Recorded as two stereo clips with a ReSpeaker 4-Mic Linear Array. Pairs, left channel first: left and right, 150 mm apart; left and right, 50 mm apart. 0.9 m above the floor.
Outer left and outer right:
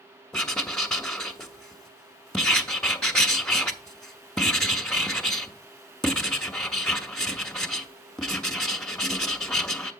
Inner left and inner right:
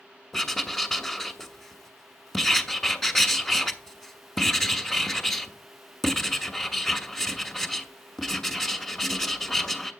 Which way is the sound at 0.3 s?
5° left (ahead or behind).